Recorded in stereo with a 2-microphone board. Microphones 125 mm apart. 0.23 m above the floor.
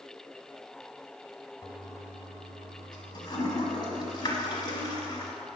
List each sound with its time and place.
1.6 s a toilet flushing: 35° left (ahead or behind), 1.1 m